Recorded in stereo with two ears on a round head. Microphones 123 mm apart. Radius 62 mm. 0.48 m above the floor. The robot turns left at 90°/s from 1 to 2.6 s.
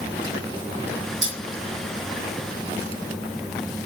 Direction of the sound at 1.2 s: 75° right (ahead or behind).